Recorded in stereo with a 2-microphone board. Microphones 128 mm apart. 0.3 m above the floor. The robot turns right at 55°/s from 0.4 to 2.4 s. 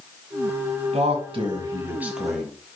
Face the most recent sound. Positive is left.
turn(degrees=5)  # may be behind; listen again after turning